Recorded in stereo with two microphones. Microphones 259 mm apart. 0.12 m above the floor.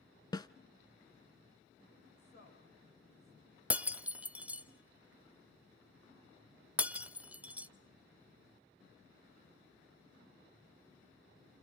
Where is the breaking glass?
5° right (ahead or behind), 0.7 m.